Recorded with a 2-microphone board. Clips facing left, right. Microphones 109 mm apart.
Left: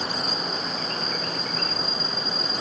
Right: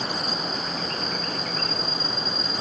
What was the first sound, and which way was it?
Only background noise.